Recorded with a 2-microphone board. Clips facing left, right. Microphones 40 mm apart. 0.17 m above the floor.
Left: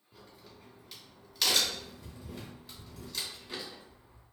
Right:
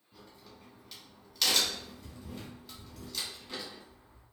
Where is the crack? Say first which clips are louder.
Even; centre (ahead or behind), 1.2 m.